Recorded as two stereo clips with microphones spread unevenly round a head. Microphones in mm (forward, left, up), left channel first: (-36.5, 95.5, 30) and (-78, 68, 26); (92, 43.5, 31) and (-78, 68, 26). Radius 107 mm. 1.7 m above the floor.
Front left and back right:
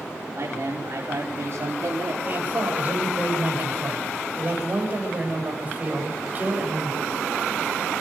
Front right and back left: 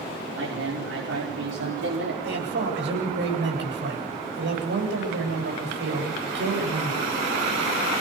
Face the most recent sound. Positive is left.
turn(degrees=155)